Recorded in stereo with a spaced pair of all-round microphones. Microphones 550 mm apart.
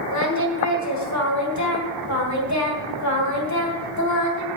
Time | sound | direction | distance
0.1 | singing | 30° left (ahead or behind) | 2 m